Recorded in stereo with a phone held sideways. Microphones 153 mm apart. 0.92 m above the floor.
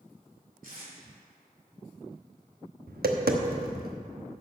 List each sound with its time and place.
0.6 s tape being pulled: 70° right (ahead or behind), 3 m
2.9 s tapping: 85° right, 1.0 m